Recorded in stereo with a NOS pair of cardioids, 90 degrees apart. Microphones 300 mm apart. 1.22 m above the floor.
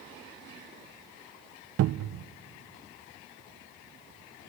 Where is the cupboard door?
55° right, 0.5 m.